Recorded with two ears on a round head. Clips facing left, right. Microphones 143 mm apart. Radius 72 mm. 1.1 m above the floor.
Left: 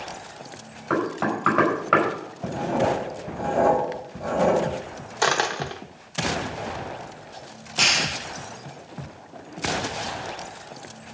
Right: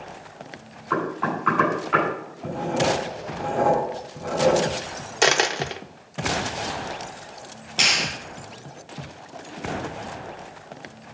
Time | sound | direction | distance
0.9 | knocking | 70° left (ahead or behind) | 5 m
2.4 | writing | 60° left (ahead or behind) | 6 m
5.2 | a dropped coin | 25° right (ahead or behind) | 0.7 m
7.8 | a clap | centre (ahead or behind) | 6 m